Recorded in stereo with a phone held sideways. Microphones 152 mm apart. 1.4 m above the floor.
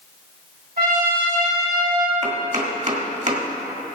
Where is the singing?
I don't hear singing.